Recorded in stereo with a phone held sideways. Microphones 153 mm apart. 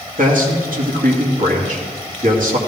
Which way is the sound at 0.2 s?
65° right (ahead or behind).